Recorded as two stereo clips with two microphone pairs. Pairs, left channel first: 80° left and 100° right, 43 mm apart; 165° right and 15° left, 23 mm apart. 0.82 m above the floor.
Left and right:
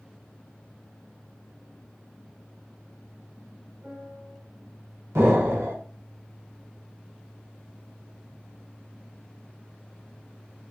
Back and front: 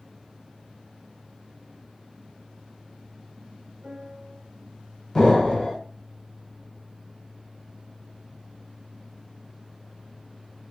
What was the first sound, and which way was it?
A piano, 45° right.